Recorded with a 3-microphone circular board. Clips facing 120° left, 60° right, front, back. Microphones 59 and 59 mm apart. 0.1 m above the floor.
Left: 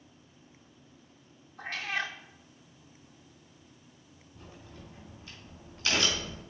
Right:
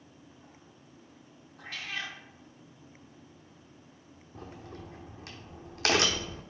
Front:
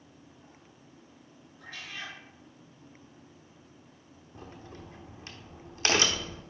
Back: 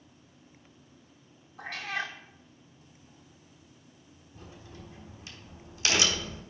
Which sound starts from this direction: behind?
A cat meowing, at 1.6 s.